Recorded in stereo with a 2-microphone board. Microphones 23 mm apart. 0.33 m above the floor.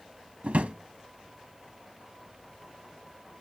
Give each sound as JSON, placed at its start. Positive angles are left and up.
{"t": 0.4, "sound": "a drawer", "side_deg": -70, "distance_m": 0.7}